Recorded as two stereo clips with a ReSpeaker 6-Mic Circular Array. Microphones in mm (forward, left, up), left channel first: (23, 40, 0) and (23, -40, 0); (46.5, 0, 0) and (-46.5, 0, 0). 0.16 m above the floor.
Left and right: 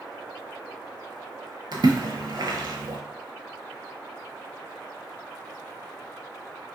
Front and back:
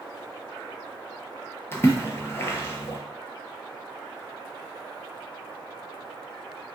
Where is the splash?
60° right, 0.5 m.